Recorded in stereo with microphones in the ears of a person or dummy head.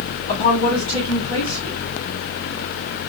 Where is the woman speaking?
35° left (ahead or behind), 1.5 m.